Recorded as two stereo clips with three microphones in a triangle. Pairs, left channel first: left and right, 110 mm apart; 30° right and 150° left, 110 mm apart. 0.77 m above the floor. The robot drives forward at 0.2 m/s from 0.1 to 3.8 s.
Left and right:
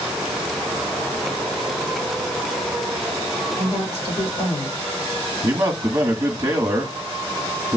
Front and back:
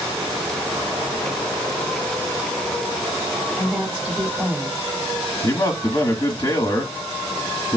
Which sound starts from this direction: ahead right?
A man speaking, at 5.4 s.